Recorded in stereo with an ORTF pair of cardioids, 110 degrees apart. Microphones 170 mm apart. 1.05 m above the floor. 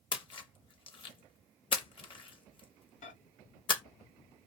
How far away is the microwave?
About 1.2 m.